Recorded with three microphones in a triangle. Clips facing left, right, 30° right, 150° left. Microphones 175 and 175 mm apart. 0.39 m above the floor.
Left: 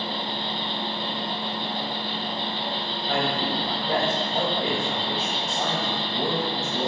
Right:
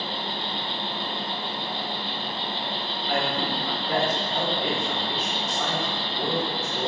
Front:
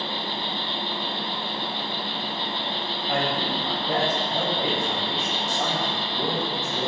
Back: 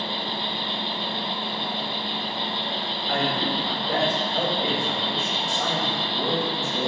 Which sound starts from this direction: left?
An insect, at 0.0 s.